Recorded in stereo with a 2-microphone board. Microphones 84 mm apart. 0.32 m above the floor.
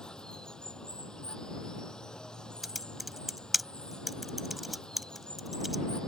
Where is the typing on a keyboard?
Centre (ahead or behind).